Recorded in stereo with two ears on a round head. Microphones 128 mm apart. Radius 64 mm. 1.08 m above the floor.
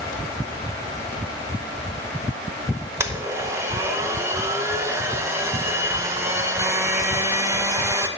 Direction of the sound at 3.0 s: 20° right (ahead or behind).